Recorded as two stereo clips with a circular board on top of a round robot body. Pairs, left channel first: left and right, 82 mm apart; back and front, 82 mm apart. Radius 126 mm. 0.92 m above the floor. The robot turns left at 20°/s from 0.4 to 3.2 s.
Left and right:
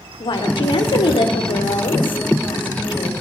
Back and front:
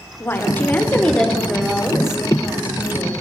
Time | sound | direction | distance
0.2 | a woman speaking | 115° left | 4 m